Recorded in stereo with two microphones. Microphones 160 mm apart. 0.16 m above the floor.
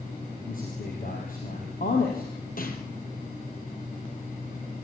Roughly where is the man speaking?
Left.